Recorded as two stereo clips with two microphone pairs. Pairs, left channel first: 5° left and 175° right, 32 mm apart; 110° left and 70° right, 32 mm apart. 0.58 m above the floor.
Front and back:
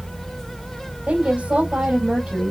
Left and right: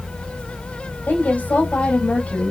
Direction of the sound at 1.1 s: 135° left.